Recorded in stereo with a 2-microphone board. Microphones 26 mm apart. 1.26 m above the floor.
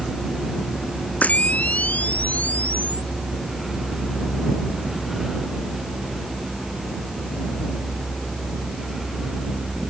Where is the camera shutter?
70° left (ahead or behind).